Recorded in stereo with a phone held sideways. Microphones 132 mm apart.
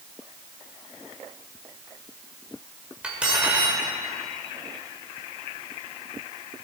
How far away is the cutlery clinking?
About 2.5 m.